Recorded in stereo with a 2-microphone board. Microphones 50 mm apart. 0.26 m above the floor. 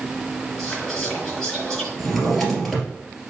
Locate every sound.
0.6 s whispering: 10° left (ahead or behind), 4.5 m
2.0 s a drawer: centre (ahead or behind), 2.5 m